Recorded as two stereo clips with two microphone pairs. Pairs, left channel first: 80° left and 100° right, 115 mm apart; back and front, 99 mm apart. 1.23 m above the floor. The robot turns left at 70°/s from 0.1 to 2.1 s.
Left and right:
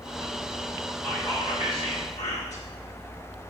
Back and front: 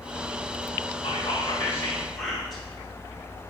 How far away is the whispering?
About 1.3 m.